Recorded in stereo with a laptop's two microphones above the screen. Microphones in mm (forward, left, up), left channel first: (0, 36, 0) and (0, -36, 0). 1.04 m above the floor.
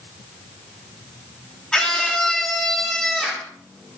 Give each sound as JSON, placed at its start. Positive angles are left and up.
{"t": 1.7, "sound": "a scream", "side_deg": 10, "distance_m": 2.5}